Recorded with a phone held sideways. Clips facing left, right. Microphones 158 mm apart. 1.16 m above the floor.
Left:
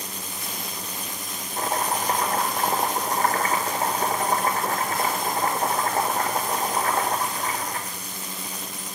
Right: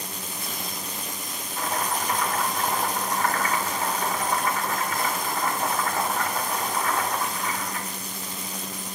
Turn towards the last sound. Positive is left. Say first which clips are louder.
# left 2 dB
turn(degrees=40)  # may be behind; listen again after turning